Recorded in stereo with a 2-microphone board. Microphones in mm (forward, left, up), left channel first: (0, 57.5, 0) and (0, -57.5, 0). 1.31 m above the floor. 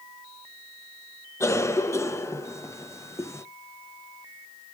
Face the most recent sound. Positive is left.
turn(degrees=25)  # may be behind; listen again after turning